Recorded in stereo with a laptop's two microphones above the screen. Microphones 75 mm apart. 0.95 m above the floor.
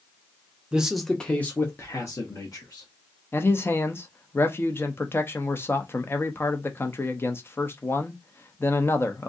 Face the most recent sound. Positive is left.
turn(degrees=30)  # may be behind; listen again after turning